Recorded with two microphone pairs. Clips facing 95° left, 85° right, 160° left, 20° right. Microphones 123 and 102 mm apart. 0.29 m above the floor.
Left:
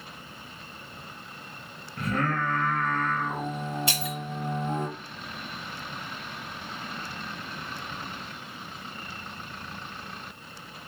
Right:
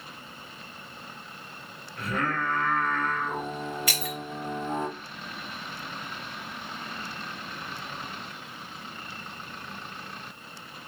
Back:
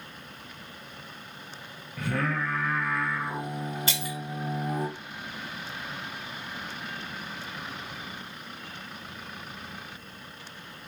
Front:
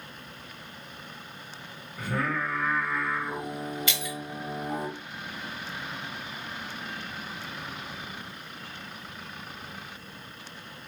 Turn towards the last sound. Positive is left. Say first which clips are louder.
# left 1 dB, back 1 dB
turn(degrees=140)